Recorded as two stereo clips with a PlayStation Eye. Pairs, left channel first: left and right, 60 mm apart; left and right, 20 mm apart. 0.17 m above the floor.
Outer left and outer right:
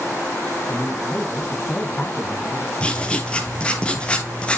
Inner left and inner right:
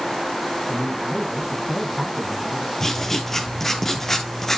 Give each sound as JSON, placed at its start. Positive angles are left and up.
{"t": 0.7, "sound": "a man speaking", "side_deg": 40, "distance_m": 1.7}
{"t": 2.8, "sound": "writing", "side_deg": 15, "distance_m": 0.9}